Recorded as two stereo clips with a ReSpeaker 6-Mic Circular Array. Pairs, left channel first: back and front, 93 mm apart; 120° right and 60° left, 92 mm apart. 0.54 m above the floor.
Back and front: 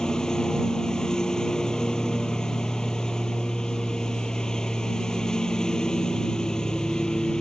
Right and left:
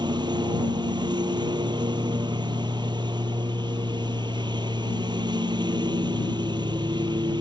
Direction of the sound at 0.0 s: 100° left.